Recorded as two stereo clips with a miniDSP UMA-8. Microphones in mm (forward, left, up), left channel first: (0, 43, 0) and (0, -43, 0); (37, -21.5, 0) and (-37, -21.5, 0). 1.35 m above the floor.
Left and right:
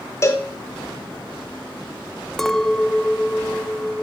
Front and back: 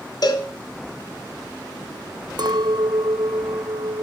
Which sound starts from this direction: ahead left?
A cowbell, at 0.2 s.